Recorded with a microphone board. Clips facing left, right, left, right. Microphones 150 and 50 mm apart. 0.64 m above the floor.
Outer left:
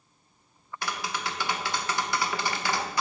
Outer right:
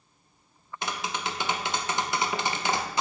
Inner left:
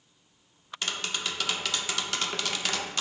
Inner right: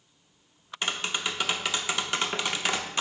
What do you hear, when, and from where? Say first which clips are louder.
0.8 s tapping: outer right 1 dB, inner right 3 dB; 20° right (ahead or behind), 0.8 m